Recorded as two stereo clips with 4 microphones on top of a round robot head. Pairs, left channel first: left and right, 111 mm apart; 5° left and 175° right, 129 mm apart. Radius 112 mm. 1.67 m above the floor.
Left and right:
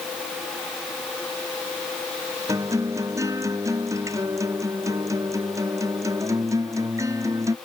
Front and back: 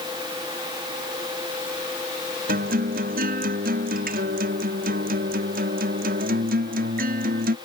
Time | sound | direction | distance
2.5 | a guitar | 160° right | ?